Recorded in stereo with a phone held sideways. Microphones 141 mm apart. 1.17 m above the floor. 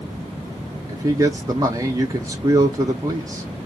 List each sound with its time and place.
0.9 s a man speaking: 25° right (ahead or behind), 0.5 m